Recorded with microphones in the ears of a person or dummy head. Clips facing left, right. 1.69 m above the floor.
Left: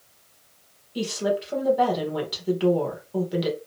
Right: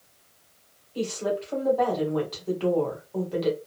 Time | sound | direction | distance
0.9 | a woman speaking | 15° left (ahead or behind) | 1.3 m